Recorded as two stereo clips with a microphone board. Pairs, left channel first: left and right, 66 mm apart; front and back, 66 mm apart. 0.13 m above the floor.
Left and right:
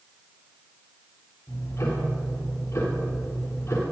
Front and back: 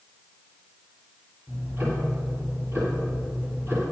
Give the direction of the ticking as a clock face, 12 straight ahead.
8 o'clock.